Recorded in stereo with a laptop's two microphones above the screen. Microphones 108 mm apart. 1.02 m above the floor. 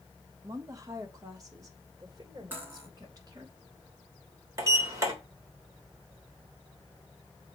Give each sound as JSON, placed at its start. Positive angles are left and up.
{"t": 0.4, "sound": "a woman speaking", "side_deg": -30, "distance_m": 1.3}
{"t": 2.5, "sound": "cutlery clinking", "side_deg": -15, "distance_m": 2.5}
{"t": 4.6, "sound": "a sliding door", "side_deg": -30, "distance_m": 3.0}